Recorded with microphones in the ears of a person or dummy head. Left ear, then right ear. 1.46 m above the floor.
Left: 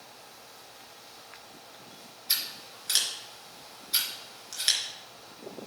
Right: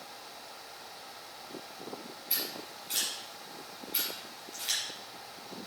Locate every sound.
2.3 s scissors: 70° left (ahead or behind), 3.5 m